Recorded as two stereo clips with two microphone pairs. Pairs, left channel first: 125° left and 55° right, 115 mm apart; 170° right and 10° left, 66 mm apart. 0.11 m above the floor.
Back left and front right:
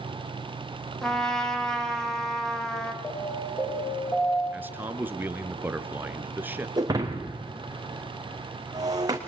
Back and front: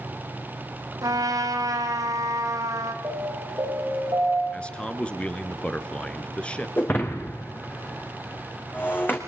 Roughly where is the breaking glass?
Right.